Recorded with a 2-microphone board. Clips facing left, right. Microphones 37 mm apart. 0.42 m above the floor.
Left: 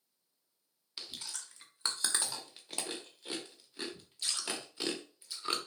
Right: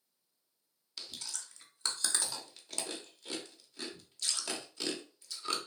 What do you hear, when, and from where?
1.0 s chewing: 20° left (ahead or behind), 0.9 m